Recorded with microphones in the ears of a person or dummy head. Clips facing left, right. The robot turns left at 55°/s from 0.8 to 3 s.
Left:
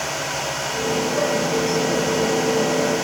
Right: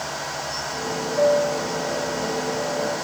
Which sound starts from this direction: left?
A piano, at 1.2 s.